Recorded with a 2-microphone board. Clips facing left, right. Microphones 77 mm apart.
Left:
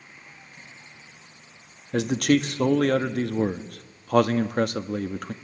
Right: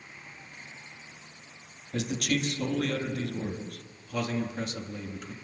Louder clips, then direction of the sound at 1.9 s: Left 9 dB; 60° left (ahead or behind).